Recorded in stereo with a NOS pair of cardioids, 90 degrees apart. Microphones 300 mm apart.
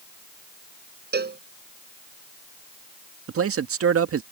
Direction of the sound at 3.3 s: 50° right.